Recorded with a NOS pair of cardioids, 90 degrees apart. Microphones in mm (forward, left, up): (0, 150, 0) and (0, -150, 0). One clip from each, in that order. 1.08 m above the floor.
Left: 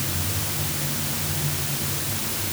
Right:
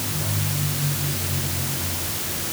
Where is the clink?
No clink in this recording.